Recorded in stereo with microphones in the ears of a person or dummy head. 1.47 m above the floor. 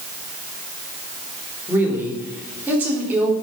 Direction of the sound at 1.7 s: 10° right (ahead or behind).